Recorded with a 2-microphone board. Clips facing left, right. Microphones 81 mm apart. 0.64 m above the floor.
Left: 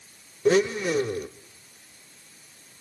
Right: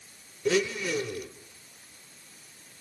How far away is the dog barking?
I don't hear a dog barking.